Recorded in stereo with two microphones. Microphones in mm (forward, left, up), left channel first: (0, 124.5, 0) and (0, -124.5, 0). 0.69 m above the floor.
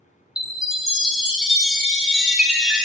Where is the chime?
5° right (ahead or behind), 0.6 m.